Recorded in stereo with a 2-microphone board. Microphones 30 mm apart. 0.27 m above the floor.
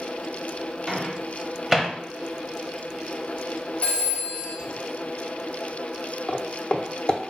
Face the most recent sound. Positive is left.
turn(degrees=35)  # may be behind; listen again after turning